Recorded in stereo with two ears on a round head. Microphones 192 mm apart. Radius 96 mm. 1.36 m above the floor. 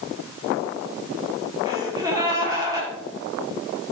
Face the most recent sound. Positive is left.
turn(degrees=-15)  # may be behind; listen again after turning